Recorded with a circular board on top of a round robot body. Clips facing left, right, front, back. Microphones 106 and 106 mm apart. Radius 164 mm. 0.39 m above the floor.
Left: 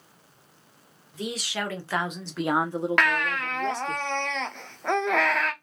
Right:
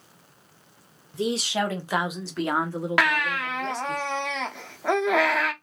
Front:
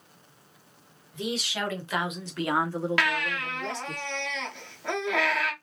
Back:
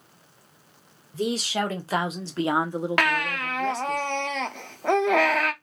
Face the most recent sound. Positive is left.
turn(degrees=-170)